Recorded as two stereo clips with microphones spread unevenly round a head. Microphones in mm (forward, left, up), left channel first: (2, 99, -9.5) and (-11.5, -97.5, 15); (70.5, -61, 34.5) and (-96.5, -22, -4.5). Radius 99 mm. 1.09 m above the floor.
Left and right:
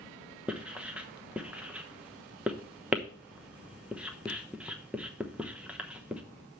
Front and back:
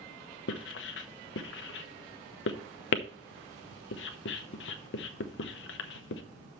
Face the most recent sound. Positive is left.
turn(degrees=-5)